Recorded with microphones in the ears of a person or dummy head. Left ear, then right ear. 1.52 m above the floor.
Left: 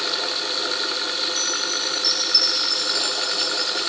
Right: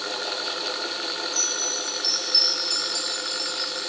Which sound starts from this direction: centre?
A chime, at 1.3 s.